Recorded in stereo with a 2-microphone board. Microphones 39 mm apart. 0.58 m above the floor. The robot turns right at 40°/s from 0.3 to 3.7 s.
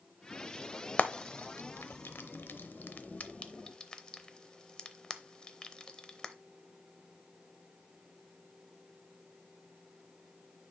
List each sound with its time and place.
1.0 s frying: 45° left (ahead or behind), 0.6 m; by 6.3 s 25° left (ahead or behind), 0.6 m